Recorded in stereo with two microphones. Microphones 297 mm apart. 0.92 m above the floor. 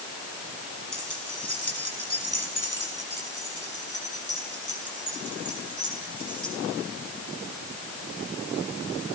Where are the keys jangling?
90° left, 6 m; by 6.5 s 70° left (ahead or behind), 9 m.